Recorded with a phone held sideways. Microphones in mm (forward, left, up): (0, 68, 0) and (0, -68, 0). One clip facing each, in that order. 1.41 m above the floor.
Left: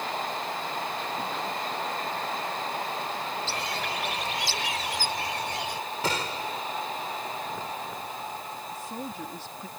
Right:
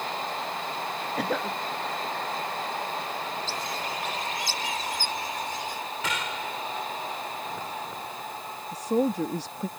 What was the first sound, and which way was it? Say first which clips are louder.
A cough: right 3 dB; 85° right.